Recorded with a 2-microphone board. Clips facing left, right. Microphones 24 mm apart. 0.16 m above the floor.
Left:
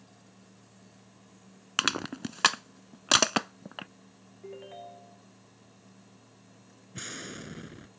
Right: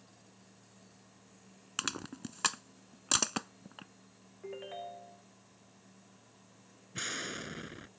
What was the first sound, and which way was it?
Crushing, 45° left (ahead or behind).